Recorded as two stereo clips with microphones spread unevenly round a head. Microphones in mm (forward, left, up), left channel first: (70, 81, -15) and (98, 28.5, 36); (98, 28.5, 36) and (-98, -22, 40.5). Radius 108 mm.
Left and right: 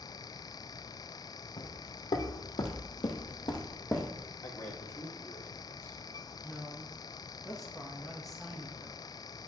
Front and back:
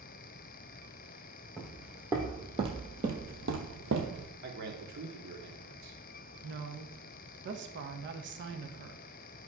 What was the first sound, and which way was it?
Footsteps, 105° left.